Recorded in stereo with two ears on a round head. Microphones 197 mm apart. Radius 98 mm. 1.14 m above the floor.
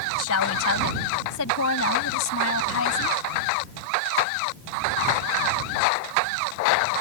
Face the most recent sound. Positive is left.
turn(degrees=65)  # may be behind; listen again after turning